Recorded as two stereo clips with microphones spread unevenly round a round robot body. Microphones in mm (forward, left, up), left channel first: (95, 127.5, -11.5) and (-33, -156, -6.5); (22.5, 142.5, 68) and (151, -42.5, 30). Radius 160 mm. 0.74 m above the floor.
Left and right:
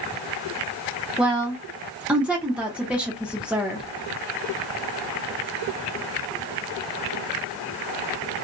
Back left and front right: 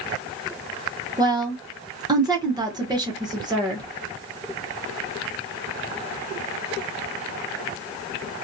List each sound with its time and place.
1.2 s a woman speaking: 30° right, 0.9 m